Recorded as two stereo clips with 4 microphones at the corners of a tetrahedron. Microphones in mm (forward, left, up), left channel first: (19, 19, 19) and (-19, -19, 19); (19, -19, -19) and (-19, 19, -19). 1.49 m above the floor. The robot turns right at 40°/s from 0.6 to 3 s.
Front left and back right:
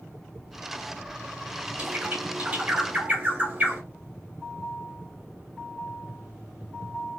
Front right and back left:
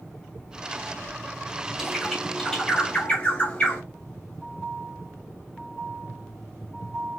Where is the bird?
150° right, 0.9 m; by 3.8 s 100° right, 0.9 m.